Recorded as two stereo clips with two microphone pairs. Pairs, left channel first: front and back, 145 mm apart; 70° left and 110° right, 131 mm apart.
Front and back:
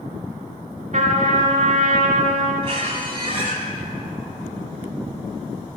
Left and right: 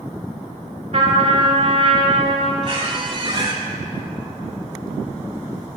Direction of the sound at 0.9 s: 145° right.